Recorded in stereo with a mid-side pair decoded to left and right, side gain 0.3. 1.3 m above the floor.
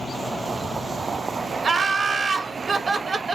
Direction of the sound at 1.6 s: 60° right.